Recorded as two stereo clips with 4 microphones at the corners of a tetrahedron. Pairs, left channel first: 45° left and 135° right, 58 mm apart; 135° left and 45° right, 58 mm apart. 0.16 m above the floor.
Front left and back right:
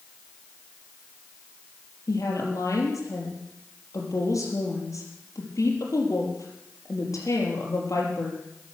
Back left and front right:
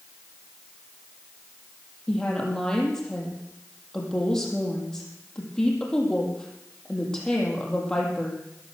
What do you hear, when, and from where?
2.1 s a woman speaking: 60° left, 5 m